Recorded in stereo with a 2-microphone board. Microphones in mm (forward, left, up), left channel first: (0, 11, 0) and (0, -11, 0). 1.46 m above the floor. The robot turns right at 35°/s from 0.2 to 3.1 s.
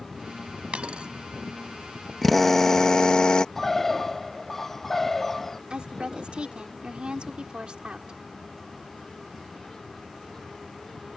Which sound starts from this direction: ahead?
A drill, at 2.2 s.